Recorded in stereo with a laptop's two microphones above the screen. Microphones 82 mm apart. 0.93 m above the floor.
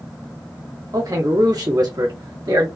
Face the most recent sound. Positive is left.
turn(degrees=-60)  # may be behind; listen again after turning